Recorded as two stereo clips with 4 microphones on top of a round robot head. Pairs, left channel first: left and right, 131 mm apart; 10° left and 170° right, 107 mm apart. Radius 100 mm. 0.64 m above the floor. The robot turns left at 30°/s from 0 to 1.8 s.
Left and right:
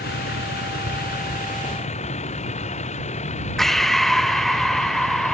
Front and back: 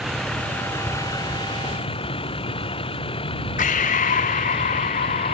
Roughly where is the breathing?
Ahead.